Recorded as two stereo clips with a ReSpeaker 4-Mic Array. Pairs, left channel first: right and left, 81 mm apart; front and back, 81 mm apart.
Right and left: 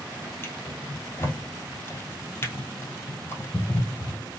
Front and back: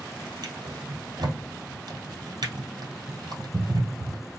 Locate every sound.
0.4 s a drawer: 150° right, 1.9 m